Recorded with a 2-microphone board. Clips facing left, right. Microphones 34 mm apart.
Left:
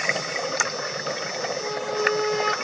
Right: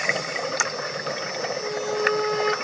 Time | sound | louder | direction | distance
1.6 | a flute | right 1 dB | 5° left (ahead or behind) | 0.9 m